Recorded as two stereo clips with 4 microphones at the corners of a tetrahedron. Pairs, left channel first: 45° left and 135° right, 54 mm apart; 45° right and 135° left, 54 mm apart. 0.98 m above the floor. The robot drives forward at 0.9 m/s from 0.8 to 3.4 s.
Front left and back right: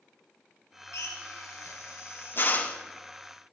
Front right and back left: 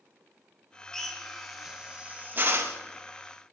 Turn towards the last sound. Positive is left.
turn(degrees=135)